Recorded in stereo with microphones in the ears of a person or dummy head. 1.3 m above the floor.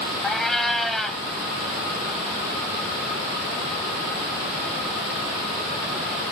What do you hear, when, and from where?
0.2 s a cat meowing: 5° left (ahead or behind), 0.9 m